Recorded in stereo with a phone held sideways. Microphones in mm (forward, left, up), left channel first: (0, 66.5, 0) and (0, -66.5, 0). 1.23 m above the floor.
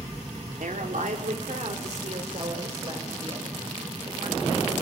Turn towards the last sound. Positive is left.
turn(degrees=-40)  # may be behind; listen again after turning